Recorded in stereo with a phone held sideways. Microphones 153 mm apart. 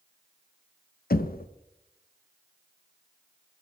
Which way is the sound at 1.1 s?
65° left (ahead or behind).